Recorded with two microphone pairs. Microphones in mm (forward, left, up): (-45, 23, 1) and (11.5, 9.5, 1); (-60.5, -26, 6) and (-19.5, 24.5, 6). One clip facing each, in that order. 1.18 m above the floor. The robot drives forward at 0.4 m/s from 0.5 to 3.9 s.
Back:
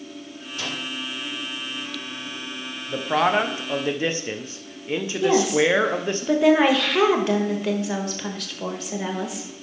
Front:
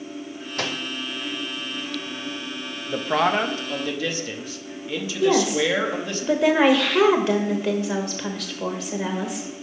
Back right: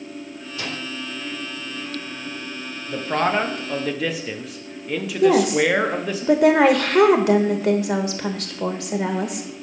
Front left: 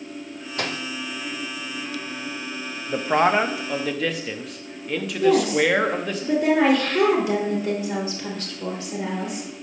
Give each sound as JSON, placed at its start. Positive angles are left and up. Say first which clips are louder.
{"t": 0.6, "sound": "a microwave", "louder": "front 3 dB, front left 3 dB", "azimuth_deg": 15, "distance_m": 0.8}
{"t": 2.9, "sound": "a man speaking", "louder": "back 1 dB, front left 2 dB", "azimuth_deg": 50, "distance_m": 0.6}
{"t": 5.2, "sound": "a woman speaking", "louder": "back 1 dB, back right 2 dB", "azimuth_deg": -105, "distance_m": 1.1}